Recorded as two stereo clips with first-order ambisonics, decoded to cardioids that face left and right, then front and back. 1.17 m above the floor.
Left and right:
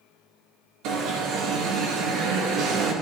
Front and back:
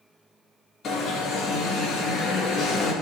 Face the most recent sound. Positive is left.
turn(degrees=-60)